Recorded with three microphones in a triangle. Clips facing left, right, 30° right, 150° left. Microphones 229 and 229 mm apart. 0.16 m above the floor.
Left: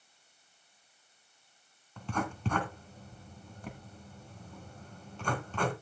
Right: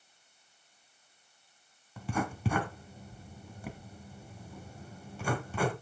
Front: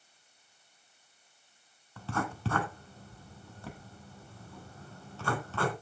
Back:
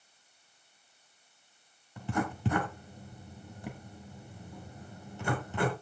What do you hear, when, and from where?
2.0 s writing: 160° right, 1.7 m